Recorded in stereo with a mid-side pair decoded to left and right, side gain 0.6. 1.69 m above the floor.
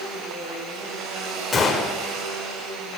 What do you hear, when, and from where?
0.0 s a machine running: 70° right, 7.5 m
1.5 s a gunshot: 25° left, 6.5 m